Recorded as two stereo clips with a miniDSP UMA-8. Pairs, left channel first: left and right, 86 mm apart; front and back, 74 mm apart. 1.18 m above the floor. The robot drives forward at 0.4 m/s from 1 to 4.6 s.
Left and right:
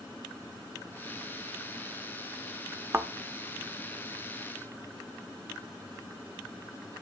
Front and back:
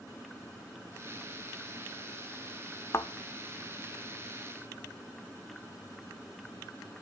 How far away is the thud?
About 1.0 m.